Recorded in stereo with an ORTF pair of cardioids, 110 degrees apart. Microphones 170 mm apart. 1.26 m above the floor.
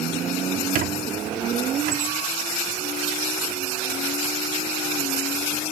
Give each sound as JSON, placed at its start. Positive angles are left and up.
{"t": 0.8, "sound": "a squeak", "azimuth_deg": -55, "distance_m": 1.9}